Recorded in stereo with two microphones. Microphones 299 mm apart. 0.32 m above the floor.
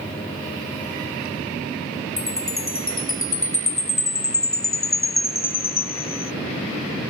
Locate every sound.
2.2 s a chime: 45° left (ahead or behind), 0.6 m